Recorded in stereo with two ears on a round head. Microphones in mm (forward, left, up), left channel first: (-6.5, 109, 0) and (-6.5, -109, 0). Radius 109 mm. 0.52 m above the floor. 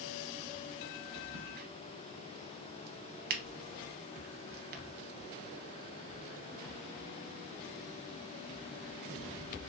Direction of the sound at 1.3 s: 40° right (ahead or behind).